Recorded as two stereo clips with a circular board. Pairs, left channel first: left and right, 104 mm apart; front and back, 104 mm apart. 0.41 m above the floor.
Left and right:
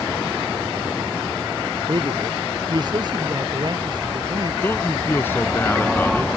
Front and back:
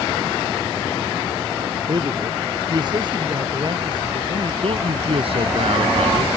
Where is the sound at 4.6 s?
160° left.